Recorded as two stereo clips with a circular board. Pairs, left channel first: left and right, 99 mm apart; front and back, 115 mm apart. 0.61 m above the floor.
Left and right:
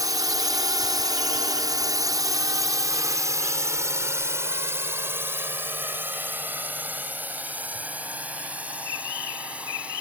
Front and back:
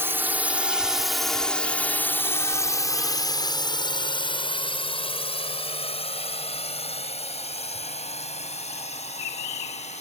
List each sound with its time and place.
0.0 s a drone: 120° right; by 10.0 s 10° right